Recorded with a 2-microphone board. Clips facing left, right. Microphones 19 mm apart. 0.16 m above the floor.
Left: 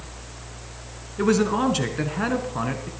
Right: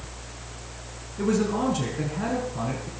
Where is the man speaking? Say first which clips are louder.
Left 4 dB; 45° left (ahead or behind), 1.6 m.